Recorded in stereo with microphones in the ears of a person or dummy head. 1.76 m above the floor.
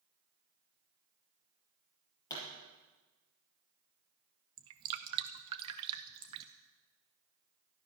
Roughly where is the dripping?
Right.